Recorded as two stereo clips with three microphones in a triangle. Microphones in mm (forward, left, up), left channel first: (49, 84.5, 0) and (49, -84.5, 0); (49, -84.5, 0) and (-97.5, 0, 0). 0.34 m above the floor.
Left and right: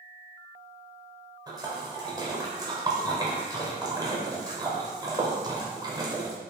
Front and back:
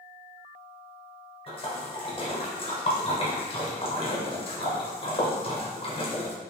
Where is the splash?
40° right, 0.7 m.